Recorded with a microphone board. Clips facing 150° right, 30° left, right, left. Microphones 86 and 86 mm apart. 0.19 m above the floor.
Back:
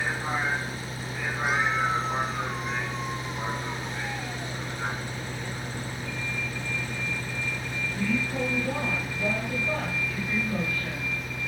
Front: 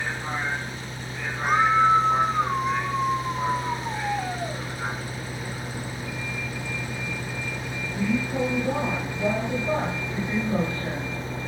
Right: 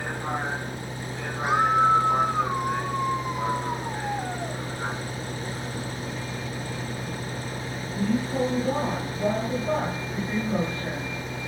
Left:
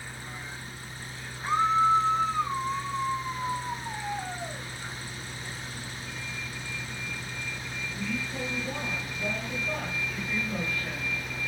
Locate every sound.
0.0 s a vehicle: 65° right; by 11.5 s 30° right
1.4 s a scream: 15° right